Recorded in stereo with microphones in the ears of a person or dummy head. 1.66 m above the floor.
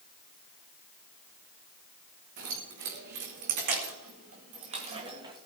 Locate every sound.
2.4 s keys jangling: 60° right (ahead or behind), 3.5 m; by 5.4 s 20° right (ahead or behind), 1.9 m